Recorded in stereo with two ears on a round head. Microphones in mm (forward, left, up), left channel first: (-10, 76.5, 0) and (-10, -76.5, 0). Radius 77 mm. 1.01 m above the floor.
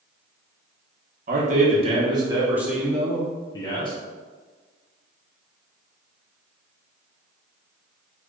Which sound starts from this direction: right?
A man speaking, at 1.3 s.